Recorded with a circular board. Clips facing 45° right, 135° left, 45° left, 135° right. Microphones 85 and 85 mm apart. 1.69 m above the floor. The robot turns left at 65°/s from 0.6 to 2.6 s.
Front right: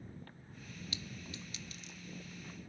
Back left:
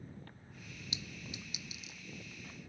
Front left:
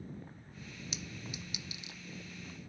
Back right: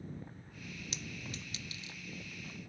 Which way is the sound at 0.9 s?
125° left.